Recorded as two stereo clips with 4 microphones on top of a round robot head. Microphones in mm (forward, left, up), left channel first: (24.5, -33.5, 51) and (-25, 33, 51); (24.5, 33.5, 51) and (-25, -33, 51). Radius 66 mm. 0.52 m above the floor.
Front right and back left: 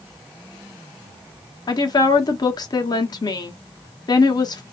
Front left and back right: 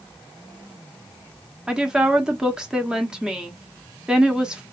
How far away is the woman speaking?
About 1.1 m.